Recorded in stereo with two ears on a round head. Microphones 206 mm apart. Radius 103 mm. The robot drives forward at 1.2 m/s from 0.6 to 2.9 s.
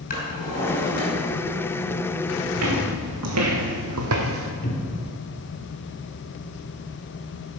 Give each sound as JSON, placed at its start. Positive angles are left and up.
{"t": 0.1, "sound": "a drawer", "side_deg": 35, "distance_m": 5.0}
{"t": 2.5, "sound": "footsteps", "side_deg": -80, "distance_m": 3.0}
{"t": 4.6, "sound": "a cupboard door", "side_deg": 45, "distance_m": 1.7}